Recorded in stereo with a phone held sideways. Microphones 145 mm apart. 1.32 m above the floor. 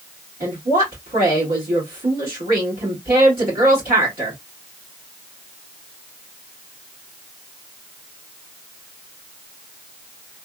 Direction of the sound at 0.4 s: 75° right (ahead or behind).